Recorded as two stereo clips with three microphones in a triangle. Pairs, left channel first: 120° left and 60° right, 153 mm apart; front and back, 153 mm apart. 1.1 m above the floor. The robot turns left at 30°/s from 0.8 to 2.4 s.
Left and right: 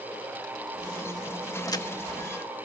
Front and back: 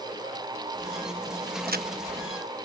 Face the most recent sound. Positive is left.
turn(degrees=165)